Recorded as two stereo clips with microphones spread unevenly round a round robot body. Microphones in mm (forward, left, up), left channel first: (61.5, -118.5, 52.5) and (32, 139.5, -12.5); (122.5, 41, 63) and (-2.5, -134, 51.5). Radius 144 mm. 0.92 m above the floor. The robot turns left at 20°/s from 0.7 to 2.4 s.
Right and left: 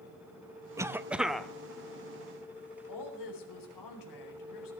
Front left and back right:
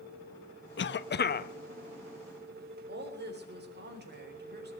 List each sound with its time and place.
0.8 s a cough: 20° left, 1.0 m; by 1.5 s 10° left, 1.0 m
2.9 s a woman speaking: 90° right, 4 m